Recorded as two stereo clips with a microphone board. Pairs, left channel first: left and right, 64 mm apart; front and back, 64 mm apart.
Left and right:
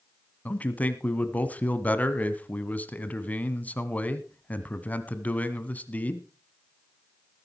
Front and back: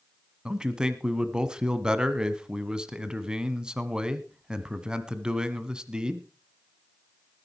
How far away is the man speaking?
About 1.2 m.